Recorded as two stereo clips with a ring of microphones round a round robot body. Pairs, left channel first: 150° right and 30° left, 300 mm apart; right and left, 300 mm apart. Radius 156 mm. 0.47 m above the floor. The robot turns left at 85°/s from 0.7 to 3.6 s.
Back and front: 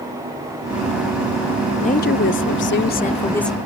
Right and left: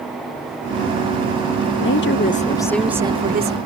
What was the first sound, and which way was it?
A woman speaking, 90° right.